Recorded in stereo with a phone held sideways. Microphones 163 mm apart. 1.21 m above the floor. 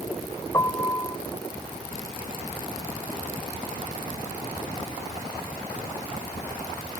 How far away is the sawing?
I don't hear sawing.